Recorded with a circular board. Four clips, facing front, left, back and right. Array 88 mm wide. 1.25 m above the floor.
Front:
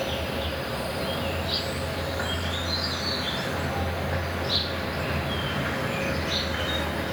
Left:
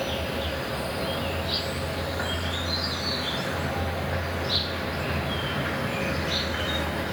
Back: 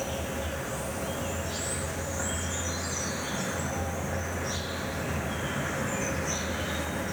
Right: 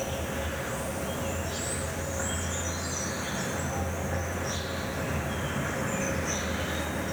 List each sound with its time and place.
0.0 s an insect: 45° left, 0.8 m